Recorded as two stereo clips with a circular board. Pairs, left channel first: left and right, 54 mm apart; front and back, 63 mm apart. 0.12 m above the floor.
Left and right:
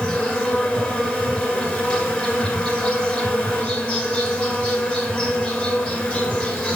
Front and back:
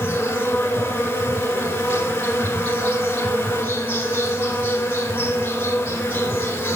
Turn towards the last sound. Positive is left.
turn(degrees=35)